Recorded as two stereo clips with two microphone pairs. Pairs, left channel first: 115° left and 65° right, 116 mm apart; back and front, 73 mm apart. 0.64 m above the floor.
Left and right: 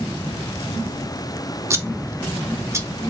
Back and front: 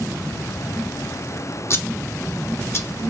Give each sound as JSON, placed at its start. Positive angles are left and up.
{"t": 1.7, "sound": "scissors", "azimuth_deg": -130, "distance_m": 0.6}